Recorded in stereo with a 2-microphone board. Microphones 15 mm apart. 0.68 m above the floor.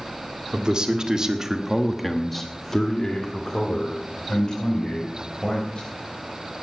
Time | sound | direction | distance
0.5 | a man speaking | 55° right (ahead or behind) | 1.8 m